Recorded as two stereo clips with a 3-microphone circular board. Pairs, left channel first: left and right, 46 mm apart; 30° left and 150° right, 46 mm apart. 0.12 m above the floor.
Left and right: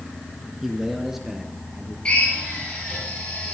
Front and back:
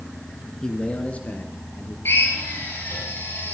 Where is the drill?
25° left, 6 m.